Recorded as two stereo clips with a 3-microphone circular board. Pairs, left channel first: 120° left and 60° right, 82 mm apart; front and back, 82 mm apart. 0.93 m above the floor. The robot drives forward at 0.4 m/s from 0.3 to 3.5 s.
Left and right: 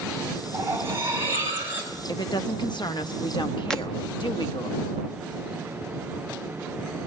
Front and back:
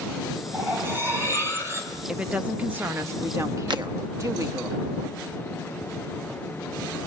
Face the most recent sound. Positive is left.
turn(degrees=-160)